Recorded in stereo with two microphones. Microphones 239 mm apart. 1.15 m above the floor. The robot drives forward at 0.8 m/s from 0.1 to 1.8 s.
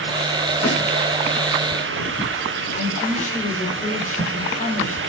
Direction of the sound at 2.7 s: 35° left (ahead or behind).